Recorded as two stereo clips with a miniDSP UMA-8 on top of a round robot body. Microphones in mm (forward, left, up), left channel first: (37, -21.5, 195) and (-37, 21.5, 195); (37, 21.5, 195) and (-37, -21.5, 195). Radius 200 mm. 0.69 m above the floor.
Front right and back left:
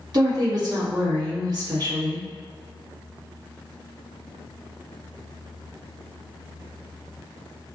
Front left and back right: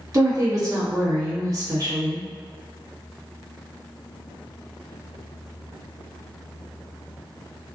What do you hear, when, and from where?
0.1 s a woman speaking: 175° left, 1.5 m